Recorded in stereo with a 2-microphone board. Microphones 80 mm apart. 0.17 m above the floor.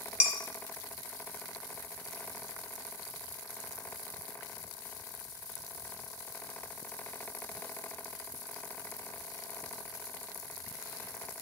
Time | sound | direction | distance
0.2 | dishes clattering | 15° right (ahead or behind) | 0.9 m